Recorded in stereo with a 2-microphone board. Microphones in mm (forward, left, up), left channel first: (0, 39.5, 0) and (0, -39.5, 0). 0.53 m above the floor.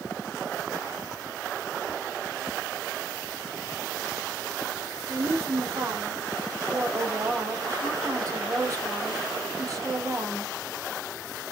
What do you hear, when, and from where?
5.1 s a woman speaking: 45° right (ahead or behind), 1.5 m